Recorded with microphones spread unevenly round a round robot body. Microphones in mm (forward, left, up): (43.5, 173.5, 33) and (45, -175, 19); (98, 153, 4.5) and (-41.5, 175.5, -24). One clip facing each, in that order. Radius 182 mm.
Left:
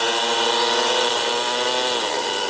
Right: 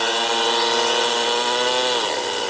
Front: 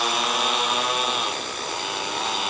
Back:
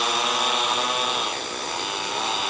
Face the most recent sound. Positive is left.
No sound to turn to.